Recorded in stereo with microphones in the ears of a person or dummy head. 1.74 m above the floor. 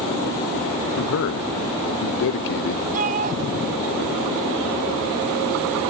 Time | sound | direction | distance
1.0 | a man speaking | 60° left (ahead or behind) | ?
2.9 | a shout | 45° right (ahead or behind) | ?